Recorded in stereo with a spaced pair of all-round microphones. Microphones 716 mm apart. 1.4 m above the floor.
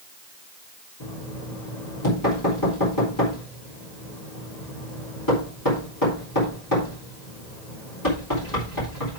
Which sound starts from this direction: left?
Knocking, at 1.0 s.